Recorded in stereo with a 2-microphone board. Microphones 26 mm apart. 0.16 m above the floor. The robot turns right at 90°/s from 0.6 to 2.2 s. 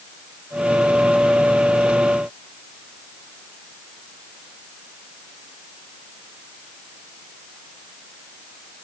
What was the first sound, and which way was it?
Only background noise.